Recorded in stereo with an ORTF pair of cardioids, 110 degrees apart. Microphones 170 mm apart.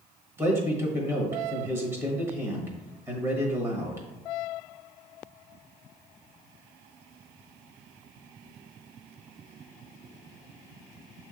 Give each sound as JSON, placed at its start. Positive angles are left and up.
{"t": 0.4, "sound": "a man speaking", "azimuth_deg": -15, "distance_m": 1.2}